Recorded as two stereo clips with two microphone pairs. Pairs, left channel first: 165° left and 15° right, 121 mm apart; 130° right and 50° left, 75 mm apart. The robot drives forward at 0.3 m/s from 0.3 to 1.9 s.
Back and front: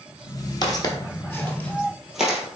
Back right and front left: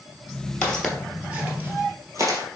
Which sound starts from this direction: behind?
Footsteps, at 0.6 s.